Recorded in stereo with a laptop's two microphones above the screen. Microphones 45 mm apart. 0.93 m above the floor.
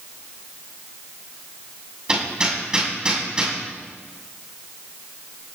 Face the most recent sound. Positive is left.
turn(degrees=-20)  # may be behind; listen again after turning